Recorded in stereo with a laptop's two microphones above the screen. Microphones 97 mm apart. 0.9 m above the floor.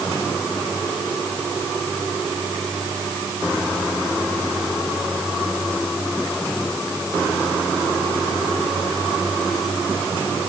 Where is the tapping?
No tapping in this recording.